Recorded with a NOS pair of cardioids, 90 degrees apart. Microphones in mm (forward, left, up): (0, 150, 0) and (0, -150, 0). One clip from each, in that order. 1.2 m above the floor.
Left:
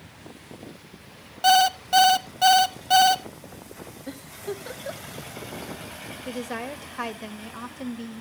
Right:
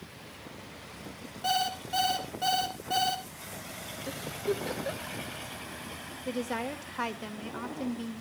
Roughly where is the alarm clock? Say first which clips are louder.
Left 11 dB; ahead left.